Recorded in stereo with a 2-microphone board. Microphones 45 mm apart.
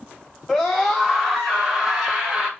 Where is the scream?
5° left (ahead or behind), 1.8 m; by 2.5 s 20° right (ahead or behind), 2.5 m.